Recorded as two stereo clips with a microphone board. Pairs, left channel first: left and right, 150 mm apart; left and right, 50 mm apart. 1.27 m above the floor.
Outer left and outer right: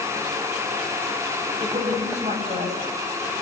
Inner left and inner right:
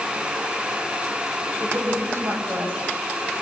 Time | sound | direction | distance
1.6 | a woman speaking | 50° right (ahead or behind) | 8 m